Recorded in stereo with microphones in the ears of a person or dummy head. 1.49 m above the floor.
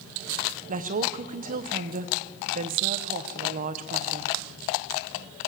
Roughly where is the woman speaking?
Right.